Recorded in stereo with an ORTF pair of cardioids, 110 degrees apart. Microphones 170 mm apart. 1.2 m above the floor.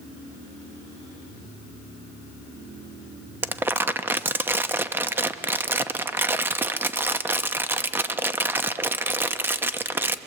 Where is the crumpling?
10° right, 0.9 m.